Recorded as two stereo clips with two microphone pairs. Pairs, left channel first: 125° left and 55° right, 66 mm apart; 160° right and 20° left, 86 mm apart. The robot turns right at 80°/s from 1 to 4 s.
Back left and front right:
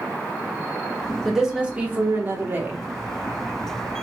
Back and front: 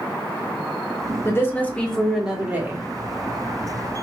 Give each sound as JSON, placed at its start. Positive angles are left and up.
{"t": 1.2, "sound": "a woman speaking", "azimuth_deg": -140, "distance_m": 1.2}